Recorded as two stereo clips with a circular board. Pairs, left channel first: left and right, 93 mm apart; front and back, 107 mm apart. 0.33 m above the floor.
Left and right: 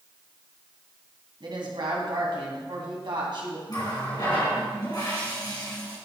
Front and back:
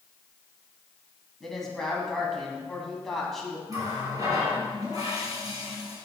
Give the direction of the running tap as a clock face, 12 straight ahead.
8 o'clock.